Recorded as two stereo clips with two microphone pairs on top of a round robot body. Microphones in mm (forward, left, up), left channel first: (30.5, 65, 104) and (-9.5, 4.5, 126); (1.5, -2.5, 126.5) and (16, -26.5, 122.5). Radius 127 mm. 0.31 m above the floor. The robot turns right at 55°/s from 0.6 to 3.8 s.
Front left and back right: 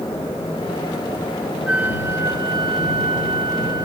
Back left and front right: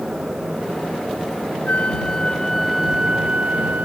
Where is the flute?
160° left; by 3.9 s 85° right.